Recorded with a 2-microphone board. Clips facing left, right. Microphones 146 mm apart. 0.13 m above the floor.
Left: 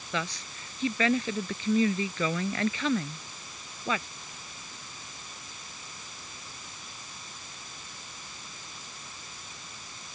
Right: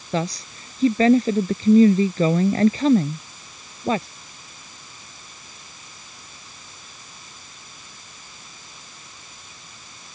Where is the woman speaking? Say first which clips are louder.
Right 9 dB; 35° right (ahead or behind).